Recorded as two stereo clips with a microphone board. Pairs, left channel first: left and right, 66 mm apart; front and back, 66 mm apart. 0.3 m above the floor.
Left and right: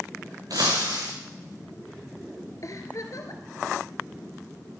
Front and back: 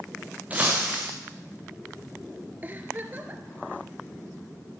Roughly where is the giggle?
Behind left.